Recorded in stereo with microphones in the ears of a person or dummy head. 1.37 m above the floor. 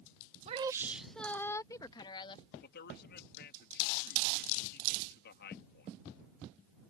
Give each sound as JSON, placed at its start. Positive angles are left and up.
{"t": 0.5, "sound": "a woman speaking", "side_deg": -35}
{"t": 2.6, "sound": "a man speaking", "side_deg": 60}